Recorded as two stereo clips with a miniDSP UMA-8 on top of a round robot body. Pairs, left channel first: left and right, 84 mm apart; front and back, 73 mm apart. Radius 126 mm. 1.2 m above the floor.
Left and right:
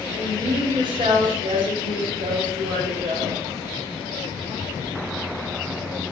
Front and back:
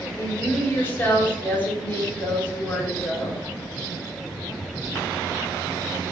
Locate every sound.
0.2 s a woman speaking: 65° right, 2.5 m